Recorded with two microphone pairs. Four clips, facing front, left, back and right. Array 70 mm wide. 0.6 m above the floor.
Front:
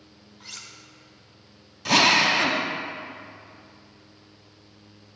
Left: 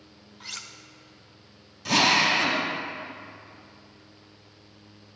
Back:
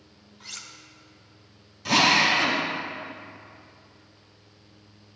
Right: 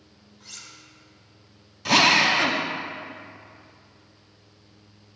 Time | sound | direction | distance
0.4 | cutlery clinking | 100° left | 0.5 m
1.9 | a drill | 60° right | 0.7 m